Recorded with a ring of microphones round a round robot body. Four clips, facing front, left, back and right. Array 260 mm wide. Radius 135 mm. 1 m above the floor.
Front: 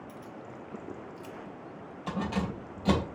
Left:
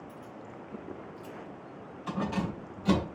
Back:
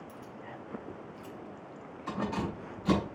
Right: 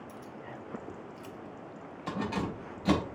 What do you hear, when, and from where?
0.1 s keys jangling: 75° right, 1.6 m; by 3.1 s 25° right, 4 m